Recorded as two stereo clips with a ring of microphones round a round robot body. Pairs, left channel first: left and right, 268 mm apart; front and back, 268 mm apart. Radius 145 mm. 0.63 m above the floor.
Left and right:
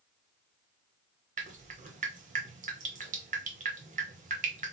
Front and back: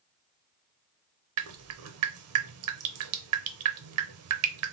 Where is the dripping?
155° right, 0.7 m.